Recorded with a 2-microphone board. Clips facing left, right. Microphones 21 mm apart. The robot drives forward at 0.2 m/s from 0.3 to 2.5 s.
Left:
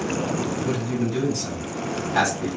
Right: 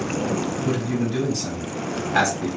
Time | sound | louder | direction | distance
0.7 | a man speaking | right 1 dB | 15° right (ahead or behind) | 1.6 m